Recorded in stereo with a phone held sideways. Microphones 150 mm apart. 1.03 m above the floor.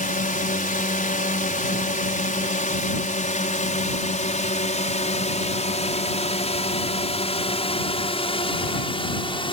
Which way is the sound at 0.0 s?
65° left (ahead or behind).